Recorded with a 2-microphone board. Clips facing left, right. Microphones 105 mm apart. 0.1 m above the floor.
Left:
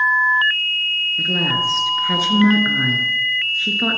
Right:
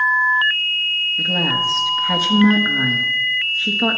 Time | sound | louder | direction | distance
1.2 | a woman speaking | even | centre (ahead or behind) | 1.3 m